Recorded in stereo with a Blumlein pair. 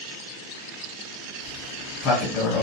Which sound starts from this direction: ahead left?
A sliding door, at 1.4 s.